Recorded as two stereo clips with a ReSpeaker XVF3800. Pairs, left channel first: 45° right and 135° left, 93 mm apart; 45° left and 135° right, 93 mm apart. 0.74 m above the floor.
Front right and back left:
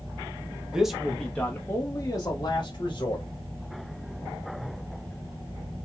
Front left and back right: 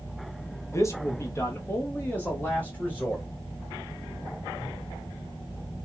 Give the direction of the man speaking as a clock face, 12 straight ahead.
10 o'clock.